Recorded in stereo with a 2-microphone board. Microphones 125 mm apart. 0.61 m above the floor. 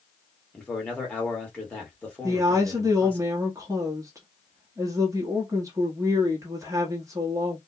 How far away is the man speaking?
About 1.5 m.